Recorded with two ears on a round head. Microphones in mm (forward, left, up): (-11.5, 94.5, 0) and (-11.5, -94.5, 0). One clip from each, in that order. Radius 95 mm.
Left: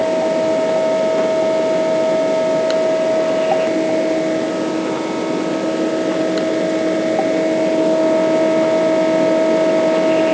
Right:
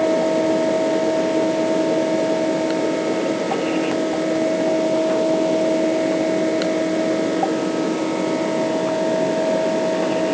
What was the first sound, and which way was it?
Only background noise.